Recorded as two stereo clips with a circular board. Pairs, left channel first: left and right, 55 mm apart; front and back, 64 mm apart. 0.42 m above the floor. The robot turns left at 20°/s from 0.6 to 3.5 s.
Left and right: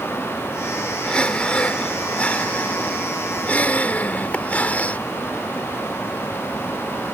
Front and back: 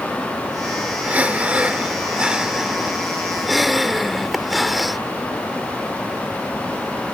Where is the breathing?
140° left; by 5.0 s 90° left.